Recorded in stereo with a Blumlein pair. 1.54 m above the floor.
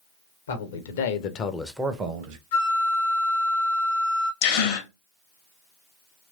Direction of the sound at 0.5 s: 70° left.